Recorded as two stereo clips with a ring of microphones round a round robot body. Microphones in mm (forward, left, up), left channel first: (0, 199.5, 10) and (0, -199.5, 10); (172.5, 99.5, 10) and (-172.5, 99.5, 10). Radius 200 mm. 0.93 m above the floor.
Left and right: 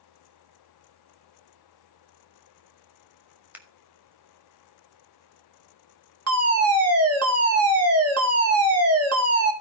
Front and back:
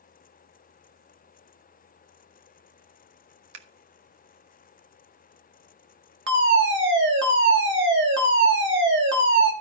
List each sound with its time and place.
3.5 s scissors: 175° right, 1.8 m
6.3 s a fire alarm: 130° right, 2 m